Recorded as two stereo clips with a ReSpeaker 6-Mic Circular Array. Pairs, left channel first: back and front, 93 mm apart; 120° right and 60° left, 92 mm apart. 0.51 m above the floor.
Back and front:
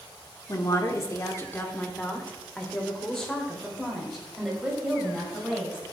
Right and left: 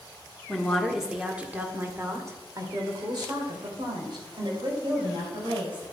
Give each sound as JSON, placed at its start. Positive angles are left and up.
{"t": 0.5, "sound": "a woman speaking", "azimuth_deg": 165, "distance_m": 1.6}